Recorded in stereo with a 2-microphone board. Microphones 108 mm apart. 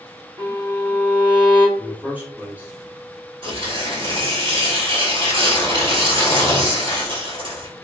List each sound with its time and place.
0.4 s a violin: 50° right (ahead or behind), 1.1 m
1.8 s a man speaking: 15° right (ahead or behind), 1.1 m
3.4 s tearing paper: 55° right (ahead or behind), 1.3 m